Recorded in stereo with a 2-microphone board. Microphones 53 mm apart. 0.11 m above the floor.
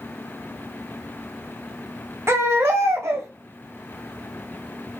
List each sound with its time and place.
2.3 s a baby crying: 55° right (ahead or behind), 2 m